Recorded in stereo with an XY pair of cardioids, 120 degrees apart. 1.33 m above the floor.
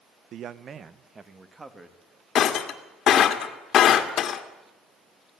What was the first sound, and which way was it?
A man speaking, 65° right.